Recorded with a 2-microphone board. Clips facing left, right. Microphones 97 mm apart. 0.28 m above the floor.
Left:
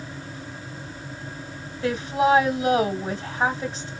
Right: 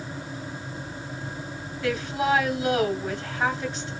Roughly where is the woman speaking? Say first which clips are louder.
Left 4 dB; left.